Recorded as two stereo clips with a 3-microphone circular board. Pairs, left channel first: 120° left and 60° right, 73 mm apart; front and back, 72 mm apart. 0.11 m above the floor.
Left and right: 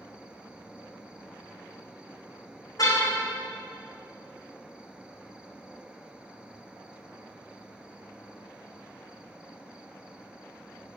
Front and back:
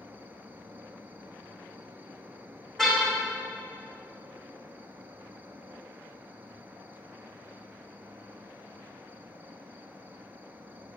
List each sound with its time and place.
0.0 s an insect: 130° right, 1.1 m
2.8 s a car horn: 85° left, 4 m